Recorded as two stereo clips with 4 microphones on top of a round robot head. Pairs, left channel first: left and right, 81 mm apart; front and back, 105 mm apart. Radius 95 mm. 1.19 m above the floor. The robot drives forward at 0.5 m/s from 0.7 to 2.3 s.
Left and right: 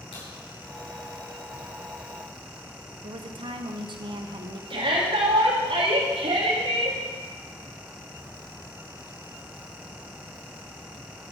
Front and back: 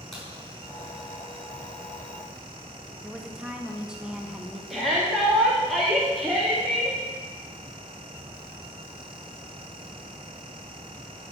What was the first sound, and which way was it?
A crack, 85° left.